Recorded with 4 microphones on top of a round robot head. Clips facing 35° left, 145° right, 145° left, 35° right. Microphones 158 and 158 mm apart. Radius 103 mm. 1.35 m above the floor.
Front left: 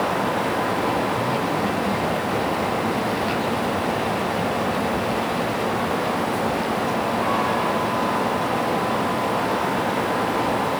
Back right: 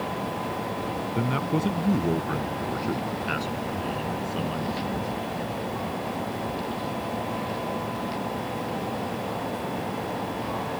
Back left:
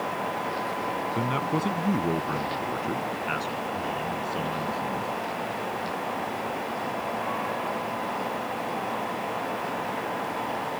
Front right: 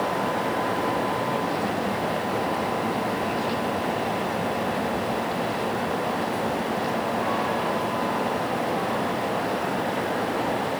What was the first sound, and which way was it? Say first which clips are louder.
A man speaking: front left 3 dB, front right 2 dB; 175° left.